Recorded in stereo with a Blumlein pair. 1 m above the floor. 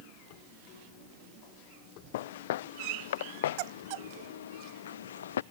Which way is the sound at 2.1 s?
55° left.